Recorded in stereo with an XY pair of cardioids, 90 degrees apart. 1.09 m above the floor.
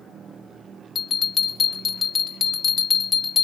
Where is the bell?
50° left, 1.8 m.